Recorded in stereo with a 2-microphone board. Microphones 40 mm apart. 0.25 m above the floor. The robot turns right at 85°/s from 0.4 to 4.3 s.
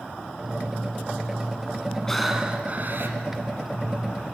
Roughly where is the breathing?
Behind.